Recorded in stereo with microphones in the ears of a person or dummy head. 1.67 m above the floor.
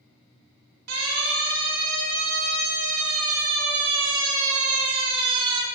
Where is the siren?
85° right, 7.5 m; by 5.7 s 30° right (ahead or behind), 5 m.